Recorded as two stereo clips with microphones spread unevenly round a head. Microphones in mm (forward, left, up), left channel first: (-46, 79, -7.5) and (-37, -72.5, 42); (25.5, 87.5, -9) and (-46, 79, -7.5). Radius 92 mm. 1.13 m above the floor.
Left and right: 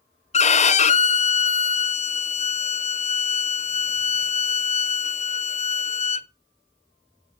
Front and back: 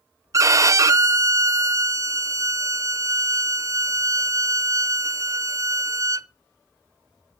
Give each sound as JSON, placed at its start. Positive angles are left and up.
{"t": 0.3, "sound": "a violin", "azimuth_deg": 140, "distance_m": 0.5}